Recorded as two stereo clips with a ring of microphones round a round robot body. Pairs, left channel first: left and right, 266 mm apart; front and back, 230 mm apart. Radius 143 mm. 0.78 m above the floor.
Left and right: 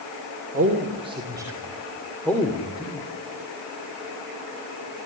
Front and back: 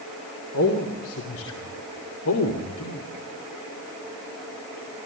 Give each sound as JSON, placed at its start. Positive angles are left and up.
{"t": 0.5, "sound": "a man speaking", "azimuth_deg": -30, "distance_m": 3.0}